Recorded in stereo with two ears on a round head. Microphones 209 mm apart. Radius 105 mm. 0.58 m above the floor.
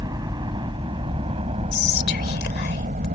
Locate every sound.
0.0 s a helicopter: 20° right (ahead or behind); by 3.2 s 35° right (ahead or behind)
1.7 s whispering: 50° left (ahead or behind)